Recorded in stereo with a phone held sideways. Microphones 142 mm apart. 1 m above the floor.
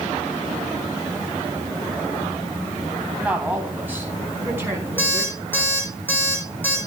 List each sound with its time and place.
3.2 s a woman speaking: 10° right (ahead or behind), 4 m; by 5.4 s 20° right (ahead or behind), 6.5 m
5.0 s an alarm clock: 15° left (ahead or behind), 6 m